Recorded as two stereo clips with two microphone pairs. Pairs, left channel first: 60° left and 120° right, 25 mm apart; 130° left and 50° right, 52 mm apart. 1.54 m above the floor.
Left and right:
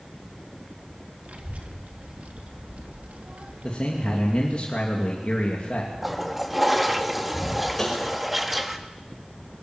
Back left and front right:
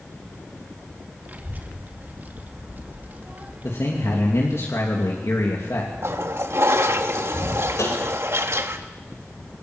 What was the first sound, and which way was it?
A child speaking, 100° right.